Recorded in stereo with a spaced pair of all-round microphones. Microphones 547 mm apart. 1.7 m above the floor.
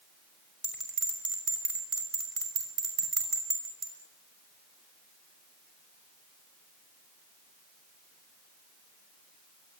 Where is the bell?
75° right (ahead or behind), 6 m.